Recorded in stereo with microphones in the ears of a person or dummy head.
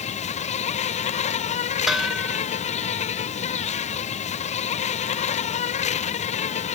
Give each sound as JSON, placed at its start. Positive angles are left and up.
{"t": 0.0, "sound": "an insect", "side_deg": 35}
{"t": 1.9, "sound": "dishes clattering", "side_deg": 0}